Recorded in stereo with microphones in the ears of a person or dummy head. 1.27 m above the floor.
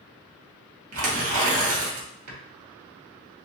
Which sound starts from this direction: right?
Tearing paper, at 0.9 s.